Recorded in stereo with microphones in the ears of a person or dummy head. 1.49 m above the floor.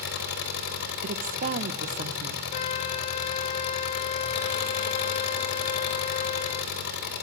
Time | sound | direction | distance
0.0 | an engine running | 65° left (ahead or behind) | 4 m
1.0 | a woman speaking | 45° right (ahead or behind) | 1.1 m
2.5 | a flute | 40° left (ahead or behind) | 0.6 m